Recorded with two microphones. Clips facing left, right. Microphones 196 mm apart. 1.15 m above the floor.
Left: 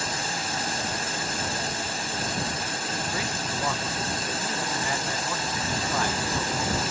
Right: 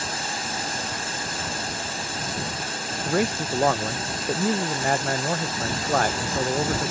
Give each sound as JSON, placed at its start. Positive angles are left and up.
{"t": 3.0, "sound": "a man speaking", "side_deg": -60}